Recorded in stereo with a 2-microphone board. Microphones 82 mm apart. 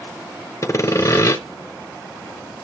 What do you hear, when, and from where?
0.6 s sawing: 40° left (ahead or behind), 0.7 m